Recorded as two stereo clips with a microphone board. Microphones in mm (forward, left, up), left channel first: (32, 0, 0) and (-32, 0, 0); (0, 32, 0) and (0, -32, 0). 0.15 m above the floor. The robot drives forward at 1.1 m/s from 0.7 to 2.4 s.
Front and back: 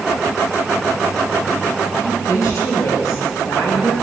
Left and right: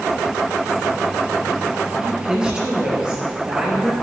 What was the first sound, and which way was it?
A woman speaking, 10° right.